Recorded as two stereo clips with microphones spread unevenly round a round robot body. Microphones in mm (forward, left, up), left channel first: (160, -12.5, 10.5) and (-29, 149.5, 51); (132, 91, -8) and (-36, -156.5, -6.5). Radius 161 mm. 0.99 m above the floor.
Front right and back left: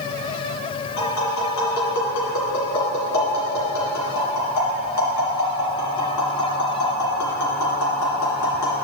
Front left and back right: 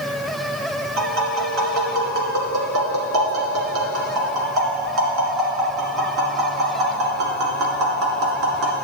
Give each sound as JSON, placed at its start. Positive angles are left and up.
{"t": 1.0, "sound": "tapping", "azimuth_deg": -85, "distance_m": 2.0}